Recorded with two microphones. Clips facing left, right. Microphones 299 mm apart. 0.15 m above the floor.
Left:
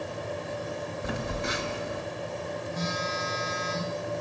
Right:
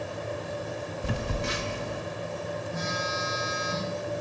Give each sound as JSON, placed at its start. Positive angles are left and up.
{"t": 1.0, "sound": "a phone buzzing", "side_deg": -35, "distance_m": 1.6}
{"t": 2.7, "sound": "a phone buzzing", "side_deg": -15, "distance_m": 6.5}